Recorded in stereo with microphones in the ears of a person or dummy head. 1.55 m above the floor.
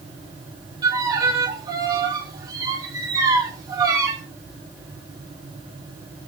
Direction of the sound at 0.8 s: 20° right (ahead or behind).